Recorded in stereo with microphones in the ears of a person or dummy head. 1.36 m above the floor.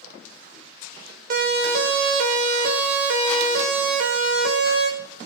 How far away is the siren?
About 4.5 m.